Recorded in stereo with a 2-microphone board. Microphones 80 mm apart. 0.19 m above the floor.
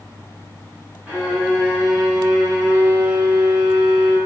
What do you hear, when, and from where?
1.1 s a violin: 20° right (ahead or behind), 1.9 m